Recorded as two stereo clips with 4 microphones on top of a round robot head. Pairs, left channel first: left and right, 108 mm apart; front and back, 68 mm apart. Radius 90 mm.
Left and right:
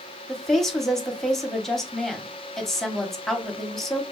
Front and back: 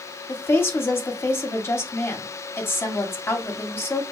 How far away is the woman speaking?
About 0.8 m.